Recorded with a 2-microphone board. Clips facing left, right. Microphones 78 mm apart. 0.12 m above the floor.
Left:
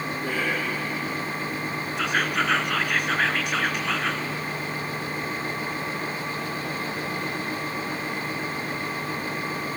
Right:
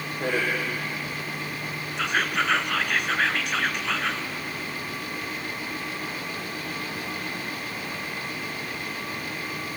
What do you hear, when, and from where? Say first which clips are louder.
0.2 s a man speaking: right 4 dB; 70° right (ahead or behind), 5.5 m
2.0 s whispering: even; centre (ahead or behind), 1.2 m